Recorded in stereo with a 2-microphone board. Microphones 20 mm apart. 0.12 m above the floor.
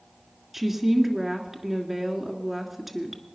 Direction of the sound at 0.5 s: 10° right (ahead or behind).